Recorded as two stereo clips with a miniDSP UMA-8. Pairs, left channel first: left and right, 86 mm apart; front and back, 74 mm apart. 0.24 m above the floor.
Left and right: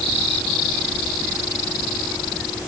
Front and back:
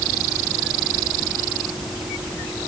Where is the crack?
No crack in this recording.